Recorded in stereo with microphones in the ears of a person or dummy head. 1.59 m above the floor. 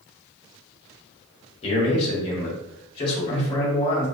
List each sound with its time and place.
1.6 s a man speaking: 30° left (ahead or behind), 1.1 m